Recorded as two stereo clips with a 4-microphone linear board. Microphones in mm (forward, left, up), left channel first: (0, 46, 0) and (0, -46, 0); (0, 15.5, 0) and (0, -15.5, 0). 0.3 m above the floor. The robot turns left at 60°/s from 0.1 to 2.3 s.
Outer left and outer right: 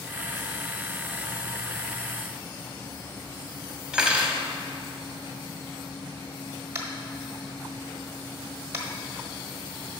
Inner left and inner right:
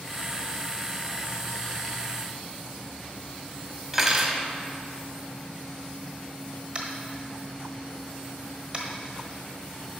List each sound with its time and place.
3.9 s cutlery clinking: 10° right (ahead or behind), 0.8 m
6.8 s tapping: 30° right (ahead or behind), 1.2 m